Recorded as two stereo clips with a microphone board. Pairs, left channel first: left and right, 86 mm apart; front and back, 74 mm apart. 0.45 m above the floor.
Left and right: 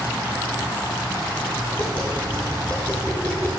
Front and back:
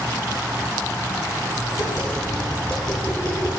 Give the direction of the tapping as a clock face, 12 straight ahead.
11 o'clock.